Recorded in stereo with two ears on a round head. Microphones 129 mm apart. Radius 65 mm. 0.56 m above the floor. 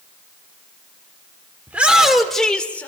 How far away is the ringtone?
No ringtone in this recording.